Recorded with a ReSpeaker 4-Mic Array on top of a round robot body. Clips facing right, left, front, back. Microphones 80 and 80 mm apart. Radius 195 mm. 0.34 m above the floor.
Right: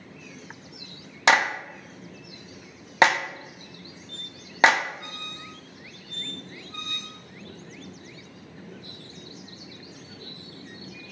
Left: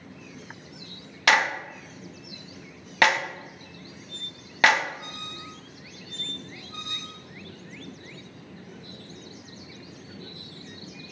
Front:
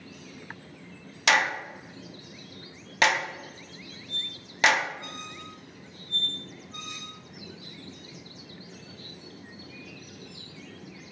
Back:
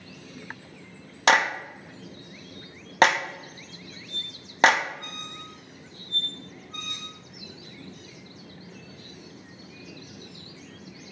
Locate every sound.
1.3 s a clap: 150° right, 0.7 m
4.1 s a squeak: 155° left, 0.9 m